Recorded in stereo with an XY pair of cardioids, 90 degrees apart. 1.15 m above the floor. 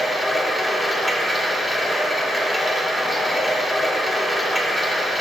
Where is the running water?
10° left, 1.4 m.